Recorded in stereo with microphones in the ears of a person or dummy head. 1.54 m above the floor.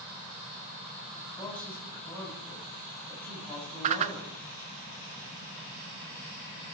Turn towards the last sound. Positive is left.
turn(degrees=-30)  # may be behind; listen again after turning